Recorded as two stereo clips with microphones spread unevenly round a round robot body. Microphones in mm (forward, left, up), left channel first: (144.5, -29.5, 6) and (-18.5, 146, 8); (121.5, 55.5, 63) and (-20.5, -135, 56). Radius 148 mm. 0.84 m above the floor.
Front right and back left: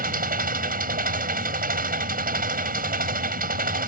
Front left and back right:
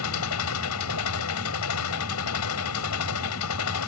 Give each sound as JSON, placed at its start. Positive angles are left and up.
{"t": 0.0, "sound": "an engine running", "azimuth_deg": 80}